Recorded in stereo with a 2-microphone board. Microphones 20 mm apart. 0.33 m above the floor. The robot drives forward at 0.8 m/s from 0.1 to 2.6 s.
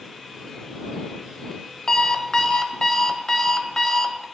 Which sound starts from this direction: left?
An alarm clock, at 1.9 s.